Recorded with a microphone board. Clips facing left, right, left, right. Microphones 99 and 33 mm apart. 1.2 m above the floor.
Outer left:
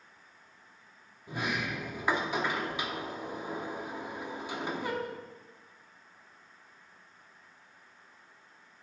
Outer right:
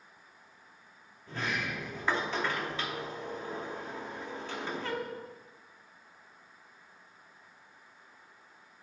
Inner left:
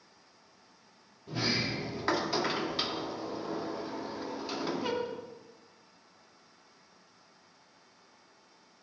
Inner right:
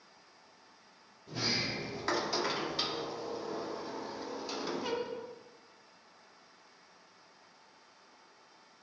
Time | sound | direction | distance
1.3 | a sliding door | 15° left (ahead or behind) | 0.8 m